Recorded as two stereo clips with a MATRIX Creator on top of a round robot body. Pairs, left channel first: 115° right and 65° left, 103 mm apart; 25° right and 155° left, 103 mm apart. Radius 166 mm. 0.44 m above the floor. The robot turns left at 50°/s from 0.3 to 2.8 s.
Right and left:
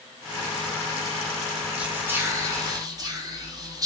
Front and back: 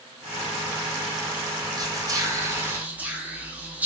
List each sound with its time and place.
1.8 s whispering: 140° left, 1.0 m; by 3.9 s 90° left, 1.0 m